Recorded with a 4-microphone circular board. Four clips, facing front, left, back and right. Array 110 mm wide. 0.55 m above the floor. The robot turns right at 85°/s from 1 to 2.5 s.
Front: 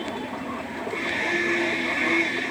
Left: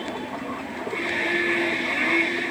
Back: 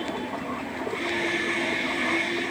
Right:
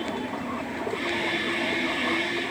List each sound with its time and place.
Only background noise.